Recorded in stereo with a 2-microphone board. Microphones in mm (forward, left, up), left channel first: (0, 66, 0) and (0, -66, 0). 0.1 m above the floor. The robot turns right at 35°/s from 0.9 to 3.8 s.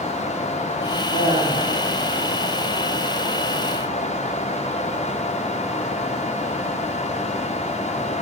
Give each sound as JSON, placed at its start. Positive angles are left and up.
{"t": 1.1, "sound": "laughter", "side_deg": 50, "distance_m": 4.5}